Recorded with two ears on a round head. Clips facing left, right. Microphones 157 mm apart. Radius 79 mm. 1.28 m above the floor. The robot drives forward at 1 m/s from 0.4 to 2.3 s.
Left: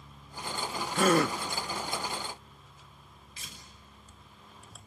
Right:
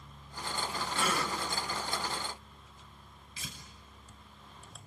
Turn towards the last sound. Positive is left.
turn(degrees=-80)